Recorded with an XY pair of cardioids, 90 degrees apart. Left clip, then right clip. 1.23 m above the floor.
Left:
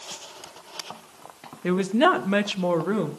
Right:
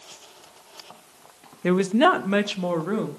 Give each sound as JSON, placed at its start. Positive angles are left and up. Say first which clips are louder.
{"t": 1.6, "sound": "a woman speaking", "louder": "right 1 dB", "azimuth_deg": -35, "distance_m": 0.9}